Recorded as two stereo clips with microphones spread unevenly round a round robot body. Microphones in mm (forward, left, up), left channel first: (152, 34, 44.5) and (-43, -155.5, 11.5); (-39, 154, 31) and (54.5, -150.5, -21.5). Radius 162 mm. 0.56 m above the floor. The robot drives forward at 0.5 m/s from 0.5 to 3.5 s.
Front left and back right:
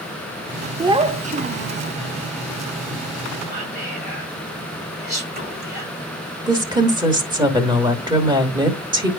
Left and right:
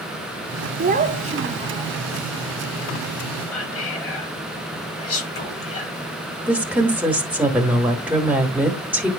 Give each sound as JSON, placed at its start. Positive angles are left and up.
{"t": 0.8, "sound": "a child speaking", "azimuth_deg": -80, "distance_m": 0.7}
{"t": 3.5, "sound": "whispering", "azimuth_deg": 155, "distance_m": 5.5}
{"t": 6.5, "sound": "a woman speaking", "azimuth_deg": -125, "distance_m": 1.2}